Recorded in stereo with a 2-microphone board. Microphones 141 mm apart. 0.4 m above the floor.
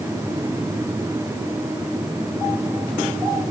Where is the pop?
I don't hear a pop.